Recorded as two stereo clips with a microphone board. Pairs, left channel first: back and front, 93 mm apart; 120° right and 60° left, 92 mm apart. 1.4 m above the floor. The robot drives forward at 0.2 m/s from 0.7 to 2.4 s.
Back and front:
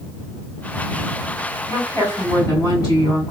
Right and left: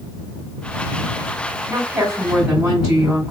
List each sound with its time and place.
1.7 s a woman speaking: 130° left, 2 m; by 3.3 s 135° left, 2.5 m